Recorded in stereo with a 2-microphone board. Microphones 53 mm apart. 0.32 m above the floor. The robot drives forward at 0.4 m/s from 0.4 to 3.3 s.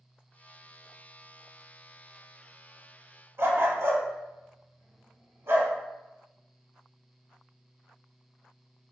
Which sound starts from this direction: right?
A dog barking, at 3.4 s.